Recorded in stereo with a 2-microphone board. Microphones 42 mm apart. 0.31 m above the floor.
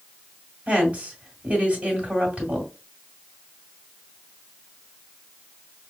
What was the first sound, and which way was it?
A woman speaking, 30° right (ahead or behind).